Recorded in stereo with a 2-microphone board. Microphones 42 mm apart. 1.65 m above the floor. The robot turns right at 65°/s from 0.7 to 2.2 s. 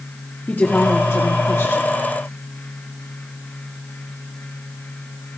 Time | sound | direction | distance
0.5 | a woman speaking | 40° left | 3 m